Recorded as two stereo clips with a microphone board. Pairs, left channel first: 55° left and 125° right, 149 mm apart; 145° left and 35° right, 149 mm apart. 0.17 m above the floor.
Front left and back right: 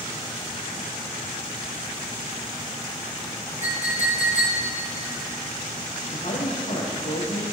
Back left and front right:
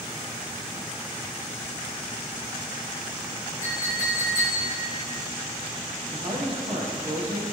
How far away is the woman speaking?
About 5.5 m.